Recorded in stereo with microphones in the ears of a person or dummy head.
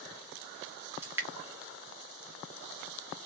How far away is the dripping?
About 0.6 m.